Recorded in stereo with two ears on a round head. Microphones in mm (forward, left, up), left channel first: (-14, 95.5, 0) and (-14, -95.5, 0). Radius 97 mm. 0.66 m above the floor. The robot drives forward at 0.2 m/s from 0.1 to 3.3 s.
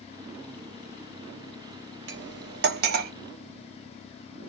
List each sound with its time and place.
2.1 s cutlery clinking: 55° right (ahead or behind), 0.6 m; by 3.1 s 45° right (ahead or behind), 0.7 m